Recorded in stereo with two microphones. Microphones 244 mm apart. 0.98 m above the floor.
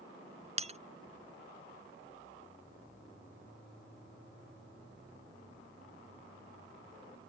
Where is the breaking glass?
25° right (ahead or behind).